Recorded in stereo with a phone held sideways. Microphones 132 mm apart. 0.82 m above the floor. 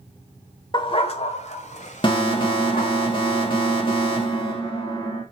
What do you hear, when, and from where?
0.7 s a dog barking: 35° left (ahead or behind), 1.1 m; by 3.0 s 80° left, 2.5 m
2.0 s an alarm: 40° left (ahead or behind), 2.5 m